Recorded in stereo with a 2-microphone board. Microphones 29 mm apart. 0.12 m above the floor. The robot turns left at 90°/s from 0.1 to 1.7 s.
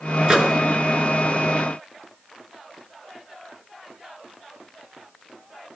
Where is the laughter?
No laughter in this recording.